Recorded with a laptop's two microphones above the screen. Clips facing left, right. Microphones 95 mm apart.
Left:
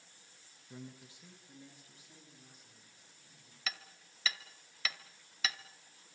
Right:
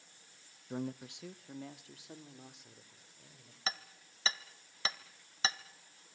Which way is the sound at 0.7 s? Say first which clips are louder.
Right 11 dB; 55° right (ahead or behind).